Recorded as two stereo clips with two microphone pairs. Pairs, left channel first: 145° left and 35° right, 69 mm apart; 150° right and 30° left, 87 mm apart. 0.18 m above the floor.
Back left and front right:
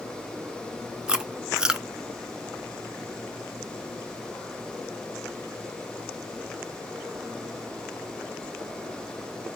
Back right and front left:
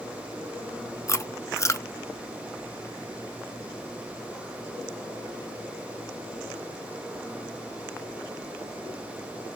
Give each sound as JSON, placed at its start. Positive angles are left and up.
{"t": 1.1, "sound": "chewing", "azimuth_deg": -105, "distance_m": 0.6}